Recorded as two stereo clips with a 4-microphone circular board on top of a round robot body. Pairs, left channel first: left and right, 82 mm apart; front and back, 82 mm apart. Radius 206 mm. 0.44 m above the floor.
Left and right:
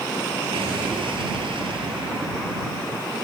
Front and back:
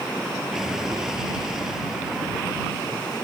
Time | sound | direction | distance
0.5 | an explosion | 95° right | ?